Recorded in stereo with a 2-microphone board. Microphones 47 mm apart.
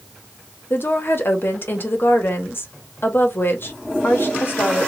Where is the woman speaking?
50° left (ahead or behind), 0.8 m.